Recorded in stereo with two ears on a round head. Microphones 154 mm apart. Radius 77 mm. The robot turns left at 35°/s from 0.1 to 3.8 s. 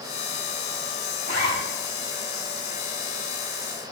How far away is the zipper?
About 4.5 m.